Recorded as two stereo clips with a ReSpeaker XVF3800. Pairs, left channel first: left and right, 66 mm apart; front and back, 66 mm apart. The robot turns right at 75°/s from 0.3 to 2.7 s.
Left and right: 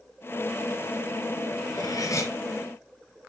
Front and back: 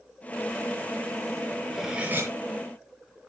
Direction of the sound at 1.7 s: 90° left.